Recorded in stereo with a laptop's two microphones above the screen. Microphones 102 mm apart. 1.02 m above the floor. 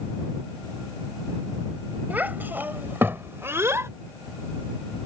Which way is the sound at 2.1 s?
15° right (ahead or behind).